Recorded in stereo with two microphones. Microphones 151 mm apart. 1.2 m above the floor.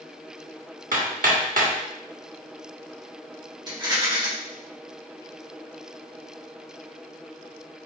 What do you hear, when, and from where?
0.9 s hammering: 65° right (ahead or behind), 1.1 m
3.7 s a rattle: 30° right (ahead or behind), 1.4 m